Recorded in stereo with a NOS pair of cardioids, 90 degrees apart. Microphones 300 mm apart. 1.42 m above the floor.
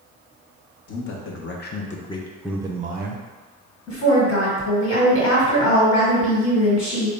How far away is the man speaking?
About 1.0 m.